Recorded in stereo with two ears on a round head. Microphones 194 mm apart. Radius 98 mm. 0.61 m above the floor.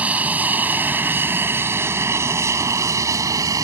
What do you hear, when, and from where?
0.0 s an aircraft: 5° right (ahead or behind); by 3.6 s 15° right (ahead or behind)